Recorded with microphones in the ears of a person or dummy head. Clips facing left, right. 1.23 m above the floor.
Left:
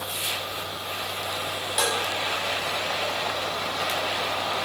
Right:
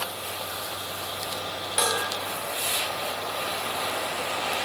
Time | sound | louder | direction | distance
1.8 | dishes clattering | even | centre (ahead or behind) | 2.5 m